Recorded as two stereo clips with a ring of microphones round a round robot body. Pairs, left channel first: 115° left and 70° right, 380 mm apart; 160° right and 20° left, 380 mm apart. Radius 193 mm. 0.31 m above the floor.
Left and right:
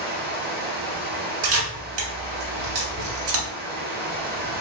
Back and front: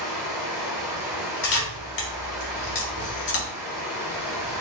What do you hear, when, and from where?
0.0 s running water: 50° right, 1.0 m
1.4 s a camera shutter: 95° right, 1.5 m